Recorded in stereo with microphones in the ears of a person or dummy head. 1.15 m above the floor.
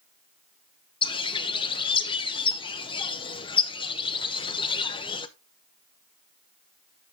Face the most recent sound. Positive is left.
turn(degrees=20)  # may be behind; listen again after turning